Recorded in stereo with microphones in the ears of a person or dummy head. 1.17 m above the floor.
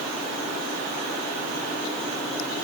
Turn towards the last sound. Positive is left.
No sound to turn to.